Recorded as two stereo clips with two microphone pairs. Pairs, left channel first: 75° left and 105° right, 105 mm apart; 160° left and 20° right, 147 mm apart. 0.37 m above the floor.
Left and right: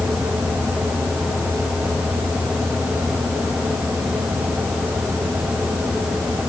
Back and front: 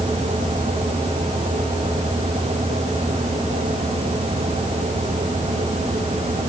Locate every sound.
Only background noise.